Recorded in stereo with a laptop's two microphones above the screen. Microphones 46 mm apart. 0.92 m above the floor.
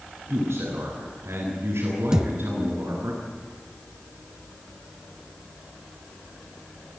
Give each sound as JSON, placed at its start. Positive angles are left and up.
{"t": 0.3, "sound": "a man speaking", "side_deg": -60, "distance_m": 8.5}
{"t": 2.1, "sound": "a thud", "side_deg": -15, "distance_m": 1.1}